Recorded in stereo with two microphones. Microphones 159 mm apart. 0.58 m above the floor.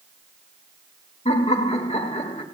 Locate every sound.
1.2 s laughter: 45° left (ahead or behind), 2 m